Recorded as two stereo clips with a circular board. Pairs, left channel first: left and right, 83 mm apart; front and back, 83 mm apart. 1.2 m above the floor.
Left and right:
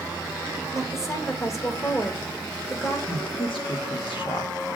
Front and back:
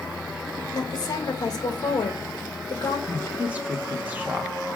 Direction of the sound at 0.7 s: 40° left.